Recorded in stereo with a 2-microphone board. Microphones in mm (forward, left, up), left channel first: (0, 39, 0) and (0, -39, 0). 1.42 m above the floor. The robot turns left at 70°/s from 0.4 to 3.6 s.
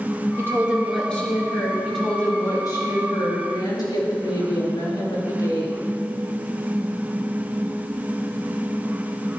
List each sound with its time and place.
0.4 s a woman speaking: 145° right, 2.5 m; by 1.7 s 120° left, 2.5 m
1.8 s a woman speaking: 175° right, 3.5 m; by 5.8 s 60° left, 3.5 m